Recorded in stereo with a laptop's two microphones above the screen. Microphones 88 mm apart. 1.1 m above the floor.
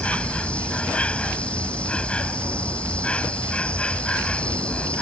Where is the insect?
15° left (ahead or behind).